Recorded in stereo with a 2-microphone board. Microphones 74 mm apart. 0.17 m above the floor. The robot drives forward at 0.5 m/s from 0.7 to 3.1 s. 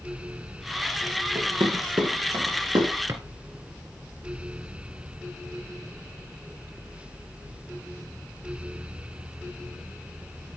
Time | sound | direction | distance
1.4 | running footsteps | 90° right | 5.5 m
3.1 | a drawer | 40° right (ahead or behind) | 1.7 m